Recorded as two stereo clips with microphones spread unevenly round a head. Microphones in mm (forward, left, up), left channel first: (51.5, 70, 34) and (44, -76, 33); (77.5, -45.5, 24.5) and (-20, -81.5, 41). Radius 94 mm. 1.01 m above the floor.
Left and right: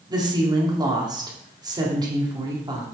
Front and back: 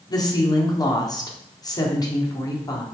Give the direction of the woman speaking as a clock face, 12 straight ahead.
1 o'clock.